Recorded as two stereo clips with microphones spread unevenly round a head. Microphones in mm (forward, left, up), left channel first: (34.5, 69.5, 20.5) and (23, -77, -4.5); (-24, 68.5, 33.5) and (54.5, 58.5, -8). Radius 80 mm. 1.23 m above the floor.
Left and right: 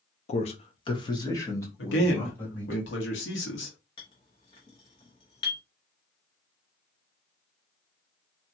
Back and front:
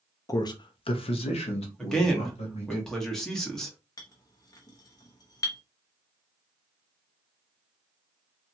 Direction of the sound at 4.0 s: 145° left.